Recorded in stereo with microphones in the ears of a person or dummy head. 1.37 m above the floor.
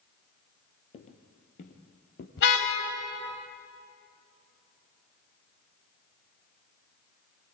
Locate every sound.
0.9 s footsteps: 30° left (ahead or behind), 1.9 m; by 2.3 s 50° left (ahead or behind), 2 m
2.4 s a car horn: 60° left (ahead or behind), 4.5 m